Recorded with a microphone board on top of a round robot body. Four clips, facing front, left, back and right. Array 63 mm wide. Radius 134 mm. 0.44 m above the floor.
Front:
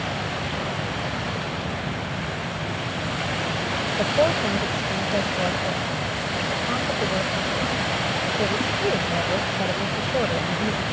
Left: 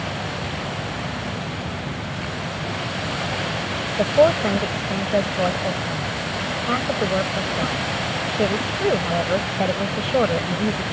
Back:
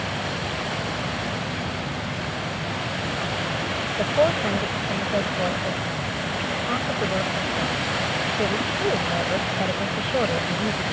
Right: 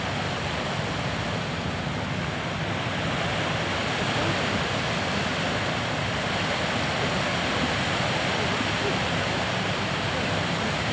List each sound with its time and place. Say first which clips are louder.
4.0 s a woman speaking: left 15 dB, back 1 dB; 100° left